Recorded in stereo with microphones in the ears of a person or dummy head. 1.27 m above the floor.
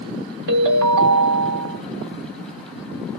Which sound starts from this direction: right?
A ringtone, at 0.5 s.